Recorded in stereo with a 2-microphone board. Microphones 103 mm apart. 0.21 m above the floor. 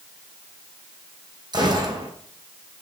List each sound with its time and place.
1.5 s a gunshot: 45° right (ahead or behind), 2.0 m